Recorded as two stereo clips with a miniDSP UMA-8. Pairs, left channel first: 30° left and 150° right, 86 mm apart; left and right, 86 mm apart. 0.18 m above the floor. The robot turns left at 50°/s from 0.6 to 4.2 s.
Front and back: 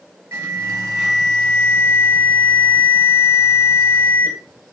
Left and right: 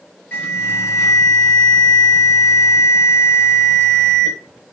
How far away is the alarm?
About 4 m.